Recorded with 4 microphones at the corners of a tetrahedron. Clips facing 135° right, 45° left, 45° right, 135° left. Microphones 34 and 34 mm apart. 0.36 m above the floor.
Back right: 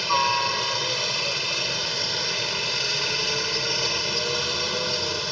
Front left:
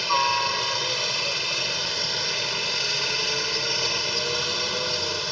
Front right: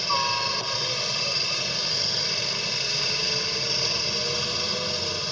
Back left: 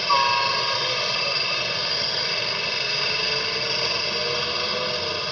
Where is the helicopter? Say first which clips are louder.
Even, back left 6 dB; 135° left.